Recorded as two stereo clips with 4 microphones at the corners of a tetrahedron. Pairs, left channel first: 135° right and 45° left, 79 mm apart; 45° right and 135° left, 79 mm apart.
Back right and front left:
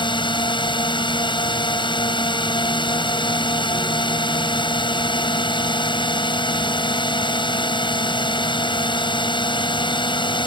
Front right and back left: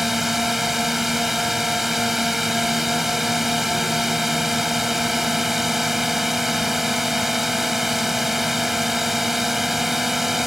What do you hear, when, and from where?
0.0 s a drone: 135° right